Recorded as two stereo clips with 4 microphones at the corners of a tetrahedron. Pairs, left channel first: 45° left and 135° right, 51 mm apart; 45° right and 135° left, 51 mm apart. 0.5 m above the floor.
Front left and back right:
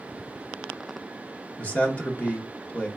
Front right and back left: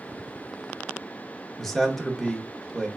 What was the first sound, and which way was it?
A man speaking, 35° left.